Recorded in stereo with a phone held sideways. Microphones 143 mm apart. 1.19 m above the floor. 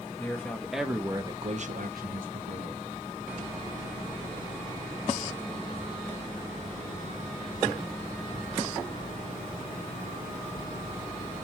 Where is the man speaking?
15° left (ahead or behind), 1.6 m; by 2.8 s 70° right (ahead or behind), 1.6 m.